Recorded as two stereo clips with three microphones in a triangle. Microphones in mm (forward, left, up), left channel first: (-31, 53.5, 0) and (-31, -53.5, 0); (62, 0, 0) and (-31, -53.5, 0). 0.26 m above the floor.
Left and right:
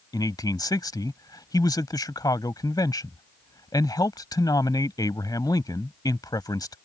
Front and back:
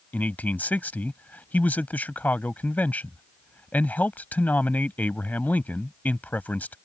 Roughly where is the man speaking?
Left.